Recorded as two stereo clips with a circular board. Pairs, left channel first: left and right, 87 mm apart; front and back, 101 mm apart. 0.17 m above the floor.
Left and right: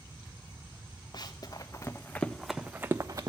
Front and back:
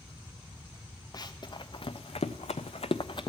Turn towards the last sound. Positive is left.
turn(degrees=-45)